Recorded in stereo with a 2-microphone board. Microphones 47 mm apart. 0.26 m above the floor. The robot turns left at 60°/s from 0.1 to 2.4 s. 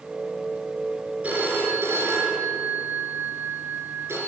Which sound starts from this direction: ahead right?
A phone ringing, at 1.2 s.